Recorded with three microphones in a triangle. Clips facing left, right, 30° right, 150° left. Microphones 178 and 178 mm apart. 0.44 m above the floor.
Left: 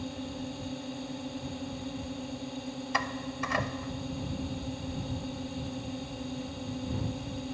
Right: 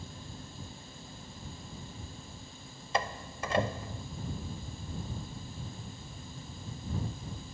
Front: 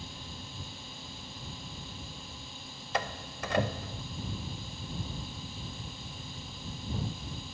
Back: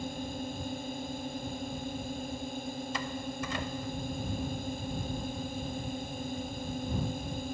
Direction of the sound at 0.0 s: 110° left.